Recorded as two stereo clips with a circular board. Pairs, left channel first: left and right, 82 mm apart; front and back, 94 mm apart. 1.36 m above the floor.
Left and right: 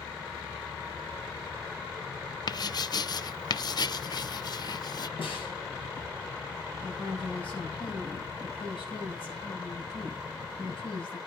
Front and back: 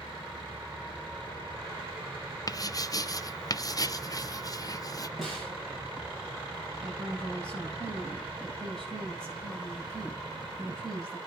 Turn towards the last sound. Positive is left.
turn(degrees=80)